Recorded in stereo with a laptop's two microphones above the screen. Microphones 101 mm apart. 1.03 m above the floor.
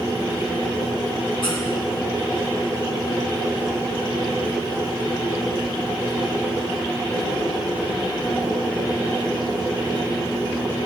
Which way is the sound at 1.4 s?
60° left (ahead or behind).